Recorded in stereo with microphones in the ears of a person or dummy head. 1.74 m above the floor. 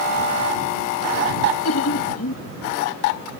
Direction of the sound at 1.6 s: 85° left.